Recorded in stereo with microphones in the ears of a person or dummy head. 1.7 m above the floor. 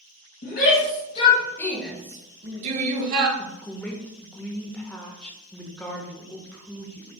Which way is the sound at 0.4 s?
55° left (ahead or behind).